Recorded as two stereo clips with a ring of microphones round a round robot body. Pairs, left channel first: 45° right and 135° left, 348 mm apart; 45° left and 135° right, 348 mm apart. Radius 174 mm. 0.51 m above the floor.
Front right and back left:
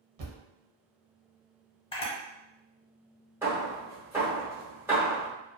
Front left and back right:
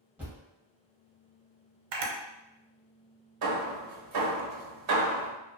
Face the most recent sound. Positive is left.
turn(degrees=-140)